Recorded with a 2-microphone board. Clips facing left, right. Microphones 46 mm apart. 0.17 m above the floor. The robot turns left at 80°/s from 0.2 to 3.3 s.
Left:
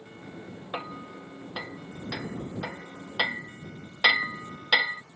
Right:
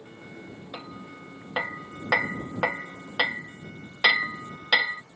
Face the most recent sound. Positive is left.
turn(degrees=-5)  # may be behind; listen again after turning